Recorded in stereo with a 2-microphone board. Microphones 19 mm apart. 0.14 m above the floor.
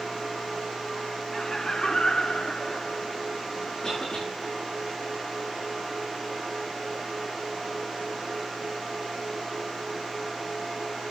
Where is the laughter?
20° left (ahead or behind), 1.1 m; by 3.2 s 60° left (ahead or behind), 2.0 m.